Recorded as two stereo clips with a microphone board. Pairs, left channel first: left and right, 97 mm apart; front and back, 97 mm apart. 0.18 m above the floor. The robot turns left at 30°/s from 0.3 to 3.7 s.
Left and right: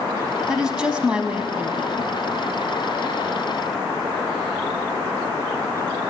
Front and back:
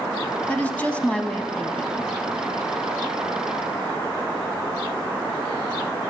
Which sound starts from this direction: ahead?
A woman speaking, at 0.5 s.